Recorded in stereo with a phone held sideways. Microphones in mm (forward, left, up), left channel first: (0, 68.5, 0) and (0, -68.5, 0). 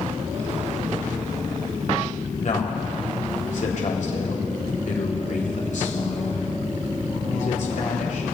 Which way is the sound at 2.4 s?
65° left (ahead or behind).